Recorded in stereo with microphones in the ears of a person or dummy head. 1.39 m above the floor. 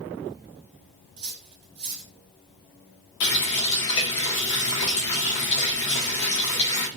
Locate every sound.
1.2 s cutlery clinking: 35° right (ahead or behind), 0.8 m
3.2 s a running tap: 65° left (ahead or behind), 1.3 m